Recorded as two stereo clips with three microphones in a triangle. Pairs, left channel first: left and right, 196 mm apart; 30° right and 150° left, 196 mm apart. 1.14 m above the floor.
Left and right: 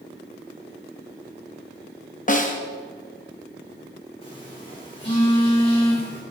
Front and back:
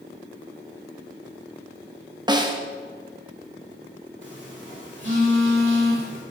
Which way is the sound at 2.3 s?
95° left.